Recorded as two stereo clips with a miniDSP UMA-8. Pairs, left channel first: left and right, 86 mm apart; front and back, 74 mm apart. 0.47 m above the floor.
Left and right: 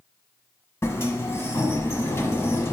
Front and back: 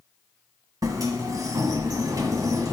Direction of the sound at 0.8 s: 150° left.